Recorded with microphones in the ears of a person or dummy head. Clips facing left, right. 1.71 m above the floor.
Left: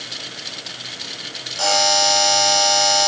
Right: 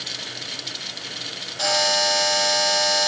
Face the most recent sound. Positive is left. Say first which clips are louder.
# left 4 dB
turn(degrees=70)  # may be behind; listen again after turning